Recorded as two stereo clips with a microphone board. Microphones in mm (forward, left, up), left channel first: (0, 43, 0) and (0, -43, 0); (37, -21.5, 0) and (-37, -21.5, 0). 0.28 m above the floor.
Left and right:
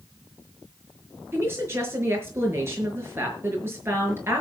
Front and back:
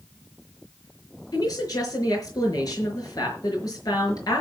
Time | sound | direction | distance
1.3 | a woman speaking | 30° right | 5.5 m